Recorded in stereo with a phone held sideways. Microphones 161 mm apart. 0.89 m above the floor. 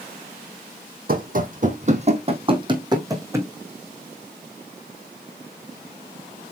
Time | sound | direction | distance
1.1 | running footsteps | 60° right (ahead or behind) | 1.8 m